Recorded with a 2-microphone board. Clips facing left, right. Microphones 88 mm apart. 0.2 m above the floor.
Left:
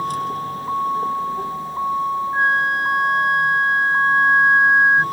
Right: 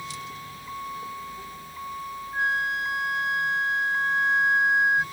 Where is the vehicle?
50° left (ahead or behind); by 5.1 s 55° left (ahead or behind).